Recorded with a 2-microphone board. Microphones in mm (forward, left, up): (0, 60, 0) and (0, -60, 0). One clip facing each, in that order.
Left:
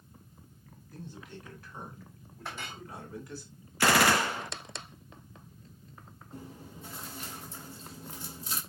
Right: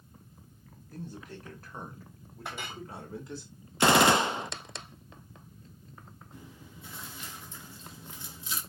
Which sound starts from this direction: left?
Chewing, at 6.3 s.